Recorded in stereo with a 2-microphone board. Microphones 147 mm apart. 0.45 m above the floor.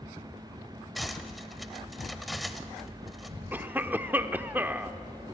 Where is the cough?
10° right (ahead or behind), 0.8 m.